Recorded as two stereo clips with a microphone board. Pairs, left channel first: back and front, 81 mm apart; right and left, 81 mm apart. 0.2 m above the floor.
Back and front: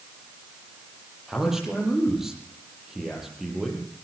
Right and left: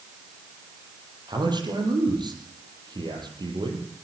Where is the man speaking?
85° left, 7 m.